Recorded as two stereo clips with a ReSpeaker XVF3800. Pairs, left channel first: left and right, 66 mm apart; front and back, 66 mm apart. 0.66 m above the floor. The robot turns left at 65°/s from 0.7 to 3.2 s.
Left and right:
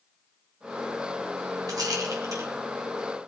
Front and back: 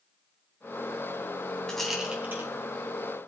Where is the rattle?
80° right, 3 m; by 2.5 s 130° right, 3 m.